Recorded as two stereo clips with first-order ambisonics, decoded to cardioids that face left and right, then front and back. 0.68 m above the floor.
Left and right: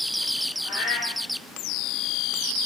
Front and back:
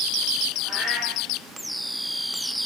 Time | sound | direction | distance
0.6 | a cat meowing | 75° left | 7 m